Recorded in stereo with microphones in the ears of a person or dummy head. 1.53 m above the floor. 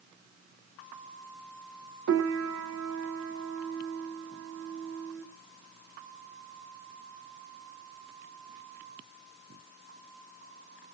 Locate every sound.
2.1 s a piano: 80° right, 2 m